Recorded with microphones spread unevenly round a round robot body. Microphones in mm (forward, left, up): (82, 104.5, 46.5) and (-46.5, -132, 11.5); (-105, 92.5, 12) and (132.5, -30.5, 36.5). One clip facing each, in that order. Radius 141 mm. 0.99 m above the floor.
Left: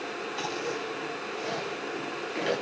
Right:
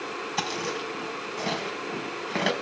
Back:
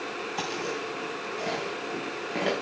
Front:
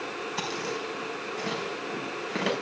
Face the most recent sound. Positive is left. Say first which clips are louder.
# right 1 dB, back 1 dB
turn(degrees=-100)